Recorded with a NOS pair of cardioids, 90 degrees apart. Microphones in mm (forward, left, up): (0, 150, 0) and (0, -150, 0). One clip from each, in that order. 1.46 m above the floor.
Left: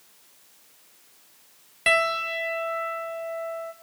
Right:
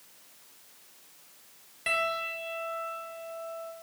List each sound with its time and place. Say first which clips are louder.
1.9 s a piano: left 7 dB; 45° left, 0.8 m